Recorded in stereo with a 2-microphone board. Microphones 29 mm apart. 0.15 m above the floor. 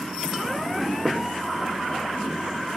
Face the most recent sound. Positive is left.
turn(degrees=-10)  # may be behind; listen again after turning